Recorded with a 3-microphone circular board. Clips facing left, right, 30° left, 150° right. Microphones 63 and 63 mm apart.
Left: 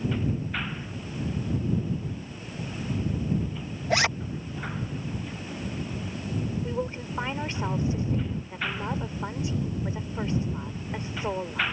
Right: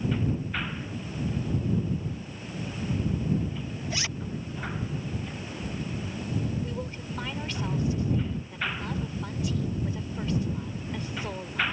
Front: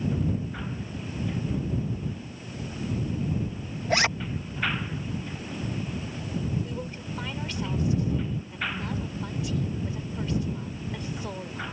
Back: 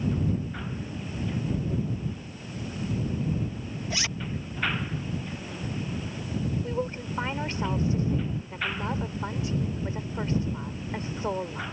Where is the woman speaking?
155° left.